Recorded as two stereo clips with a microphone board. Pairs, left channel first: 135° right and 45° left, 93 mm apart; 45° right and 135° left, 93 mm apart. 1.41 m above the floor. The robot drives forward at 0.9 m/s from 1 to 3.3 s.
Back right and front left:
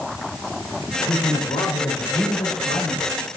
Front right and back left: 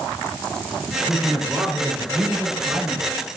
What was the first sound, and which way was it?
A man speaking, 150° right.